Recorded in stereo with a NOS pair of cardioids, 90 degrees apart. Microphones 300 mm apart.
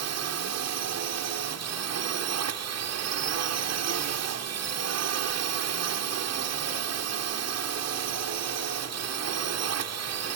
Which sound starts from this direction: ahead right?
A drone, at 0.0 s.